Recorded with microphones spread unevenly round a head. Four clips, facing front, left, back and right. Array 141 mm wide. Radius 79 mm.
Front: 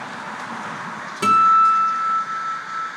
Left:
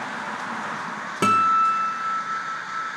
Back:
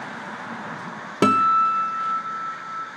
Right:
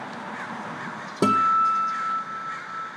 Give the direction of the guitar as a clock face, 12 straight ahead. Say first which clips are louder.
Left 1 dB, front 4 dB; 5 o'clock.